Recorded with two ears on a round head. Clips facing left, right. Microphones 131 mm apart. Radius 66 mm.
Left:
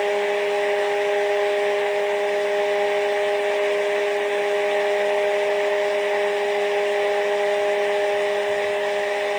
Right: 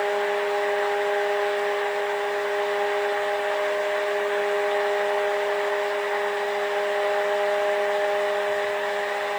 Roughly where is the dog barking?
I don't hear a dog barking.